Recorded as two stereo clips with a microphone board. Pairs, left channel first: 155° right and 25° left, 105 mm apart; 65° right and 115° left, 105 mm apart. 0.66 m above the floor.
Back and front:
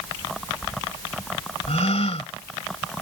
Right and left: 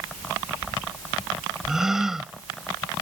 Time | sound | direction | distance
1.7 | a gasp | 165° right | ?